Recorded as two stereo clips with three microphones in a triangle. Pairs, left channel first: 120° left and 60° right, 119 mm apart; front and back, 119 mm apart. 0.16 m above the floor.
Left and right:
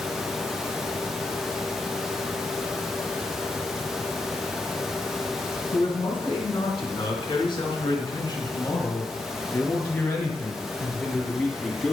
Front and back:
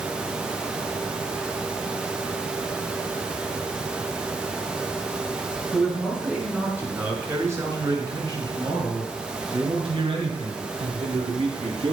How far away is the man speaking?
About 1.9 m.